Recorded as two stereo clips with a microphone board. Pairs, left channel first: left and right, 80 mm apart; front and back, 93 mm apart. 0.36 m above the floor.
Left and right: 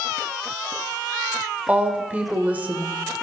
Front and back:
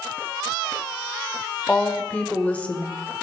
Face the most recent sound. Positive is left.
turn(degrees=-55)